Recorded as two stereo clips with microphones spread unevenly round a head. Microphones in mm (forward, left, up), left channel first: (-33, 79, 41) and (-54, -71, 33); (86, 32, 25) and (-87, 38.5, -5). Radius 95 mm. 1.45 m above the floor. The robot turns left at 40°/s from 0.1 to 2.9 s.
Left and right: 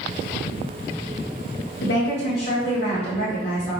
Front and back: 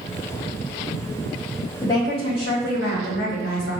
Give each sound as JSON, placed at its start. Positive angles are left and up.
{"t": 1.8, "sound": "a woman speaking", "azimuth_deg": 70, "distance_m": 0.9}